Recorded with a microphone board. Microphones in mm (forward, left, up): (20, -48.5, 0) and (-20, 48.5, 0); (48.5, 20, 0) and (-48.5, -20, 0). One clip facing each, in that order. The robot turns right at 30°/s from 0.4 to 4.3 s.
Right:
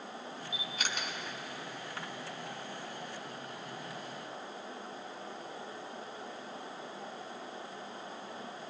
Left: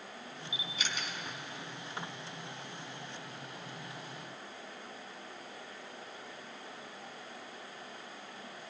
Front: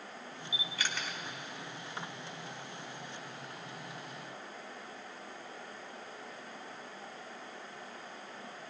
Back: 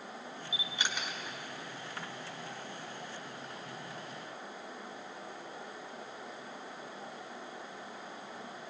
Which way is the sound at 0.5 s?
100° right.